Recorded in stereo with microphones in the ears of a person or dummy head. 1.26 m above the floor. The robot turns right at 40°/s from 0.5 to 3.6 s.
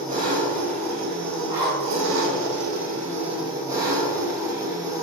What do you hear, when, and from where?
0.0 s an engine running: 140° right, 0.7 m; by 5.0 s 15° right, 0.7 m
1.5 s a zipper: 40° right (ahead or behind), 1.4 m; by 2.0 s 25° right (ahead or behind), 1.4 m